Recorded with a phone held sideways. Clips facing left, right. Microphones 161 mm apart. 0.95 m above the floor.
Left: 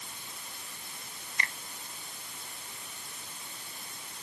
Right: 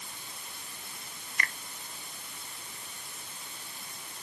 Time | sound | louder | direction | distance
1.4 | a finger snap | right 1 dB | 25° left (ahead or behind) | ?